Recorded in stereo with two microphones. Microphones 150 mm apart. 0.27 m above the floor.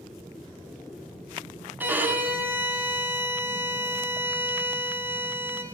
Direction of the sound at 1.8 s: 15° right (ahead or behind).